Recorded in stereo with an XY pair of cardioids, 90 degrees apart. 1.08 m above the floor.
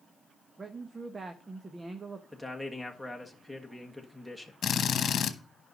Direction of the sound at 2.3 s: 5° right.